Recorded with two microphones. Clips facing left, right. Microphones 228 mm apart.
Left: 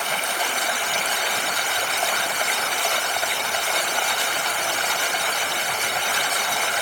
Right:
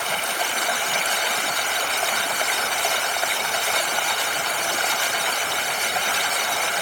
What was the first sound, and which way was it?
Only background noise.